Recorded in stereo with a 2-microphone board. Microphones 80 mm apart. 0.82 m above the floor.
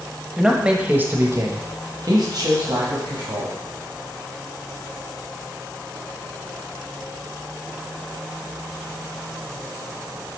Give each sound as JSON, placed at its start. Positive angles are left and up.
{"t": 0.4, "sound": "a man speaking", "side_deg": -5, "distance_m": 0.9}